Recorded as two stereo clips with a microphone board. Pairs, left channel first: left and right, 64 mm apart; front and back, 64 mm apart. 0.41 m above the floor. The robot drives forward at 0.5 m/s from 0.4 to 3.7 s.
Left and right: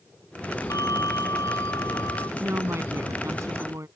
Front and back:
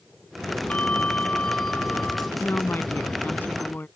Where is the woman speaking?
50° right; by 3.9 s 60° right.